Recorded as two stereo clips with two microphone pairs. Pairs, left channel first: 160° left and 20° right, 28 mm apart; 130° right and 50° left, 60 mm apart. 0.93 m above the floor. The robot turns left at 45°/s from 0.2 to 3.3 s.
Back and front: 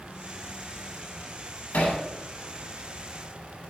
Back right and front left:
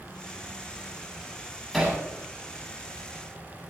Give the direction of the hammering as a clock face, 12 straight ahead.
7 o'clock.